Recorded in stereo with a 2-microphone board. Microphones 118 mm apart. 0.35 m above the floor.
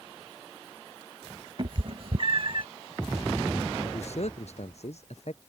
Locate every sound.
1.6 s a cat meowing: 50° right (ahead or behind); by 2.7 s 45° right (ahead or behind)
3.8 s a man speaking: 65° left (ahead or behind)